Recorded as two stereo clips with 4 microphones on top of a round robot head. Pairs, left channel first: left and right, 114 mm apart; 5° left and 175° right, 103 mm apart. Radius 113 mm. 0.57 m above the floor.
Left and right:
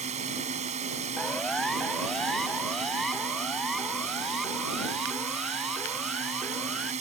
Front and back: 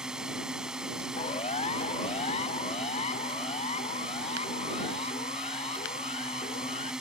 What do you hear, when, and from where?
0.0 s a drone: 90° right
1.2 s a siren: 5° left; by 6.9 s straight ahead